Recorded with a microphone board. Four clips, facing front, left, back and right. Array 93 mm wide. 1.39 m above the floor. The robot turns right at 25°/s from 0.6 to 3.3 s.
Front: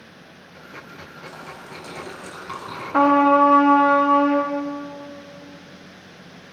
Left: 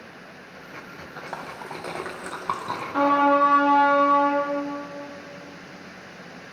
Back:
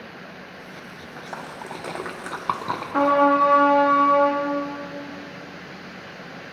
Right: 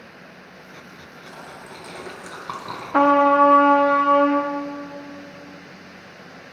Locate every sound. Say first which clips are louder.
1.2 s a splash: left 5 dB, back 5 dB; 125° left, 1.0 m; by 2.8 s 170° left, 1.0 m
2.9 s a trumpet: right 4 dB, front 3 dB; 70° right, 1.0 m; by 4.5 s 60° right, 1.0 m